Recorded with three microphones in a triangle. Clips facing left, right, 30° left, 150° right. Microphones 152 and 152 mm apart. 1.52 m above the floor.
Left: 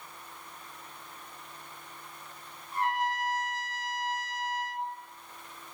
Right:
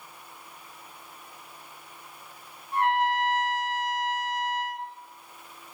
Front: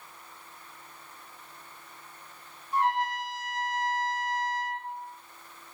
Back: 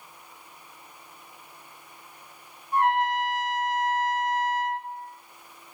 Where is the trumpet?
115° right, 1.4 m.